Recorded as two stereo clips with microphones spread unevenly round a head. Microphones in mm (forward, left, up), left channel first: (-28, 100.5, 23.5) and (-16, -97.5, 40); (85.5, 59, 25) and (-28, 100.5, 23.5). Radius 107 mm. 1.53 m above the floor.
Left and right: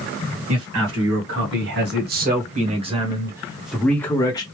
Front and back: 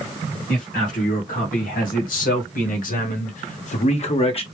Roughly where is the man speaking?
Ahead right.